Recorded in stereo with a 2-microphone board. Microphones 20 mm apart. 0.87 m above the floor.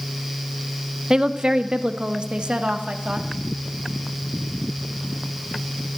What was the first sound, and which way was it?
A woman speaking, 35° right (ahead or behind).